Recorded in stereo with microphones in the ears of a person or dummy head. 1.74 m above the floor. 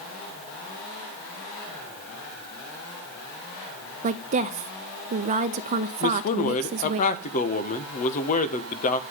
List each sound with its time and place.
4.0 s a woman speaking: 35° right (ahead or behind), 0.6 m
6.0 s a man speaking: 35° left (ahead or behind), 1.5 m